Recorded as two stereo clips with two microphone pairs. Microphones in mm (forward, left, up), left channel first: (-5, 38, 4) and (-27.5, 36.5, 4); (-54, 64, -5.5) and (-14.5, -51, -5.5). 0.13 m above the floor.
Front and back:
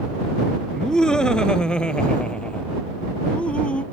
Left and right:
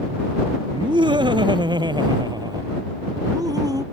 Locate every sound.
0.7 s laughter: 45° right; by 3.8 s 15° right